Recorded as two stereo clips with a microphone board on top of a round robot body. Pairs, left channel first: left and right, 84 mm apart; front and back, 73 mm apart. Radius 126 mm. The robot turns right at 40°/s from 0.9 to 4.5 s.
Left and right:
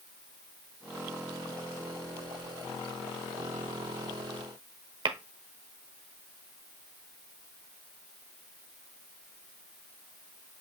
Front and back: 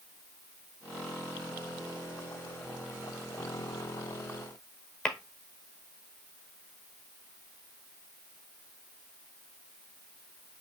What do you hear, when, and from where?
5.0 s tapping: 85° right, 1.1 m